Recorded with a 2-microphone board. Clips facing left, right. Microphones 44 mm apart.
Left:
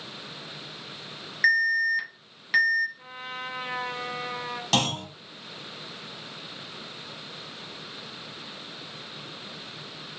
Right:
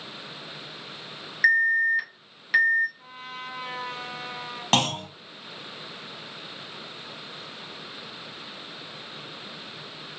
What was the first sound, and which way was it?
An alarm, 5° right (ahead or behind).